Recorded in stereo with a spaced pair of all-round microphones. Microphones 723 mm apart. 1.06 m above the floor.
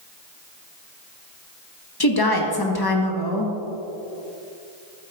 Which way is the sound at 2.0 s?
30° left (ahead or behind).